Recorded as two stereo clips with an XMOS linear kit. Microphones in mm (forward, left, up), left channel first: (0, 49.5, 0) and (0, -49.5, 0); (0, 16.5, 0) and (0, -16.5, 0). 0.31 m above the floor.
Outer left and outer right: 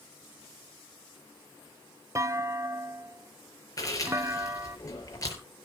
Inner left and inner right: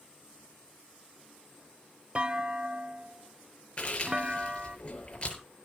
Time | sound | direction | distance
2.1 | a clunk | 30° right (ahead or behind) | 0.5 m
3.8 | chewing | 35° left (ahead or behind) | 5 m